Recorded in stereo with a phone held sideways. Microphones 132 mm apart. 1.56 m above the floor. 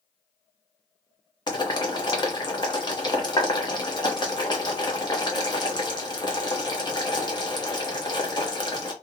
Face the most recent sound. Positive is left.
turn(degrees=35)  # may be behind; listen again after turning